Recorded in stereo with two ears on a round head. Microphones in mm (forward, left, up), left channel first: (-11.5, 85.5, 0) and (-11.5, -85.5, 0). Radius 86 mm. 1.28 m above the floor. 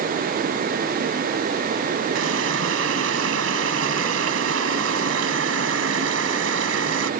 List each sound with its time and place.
2.1 s a running tap: 75° right (ahead or behind)